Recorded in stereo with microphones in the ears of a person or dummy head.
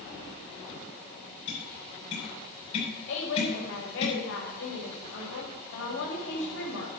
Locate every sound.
1.5 s tapping: 40° left (ahead or behind), 7 m
3.1 s a woman speaking: 85° left, 6 m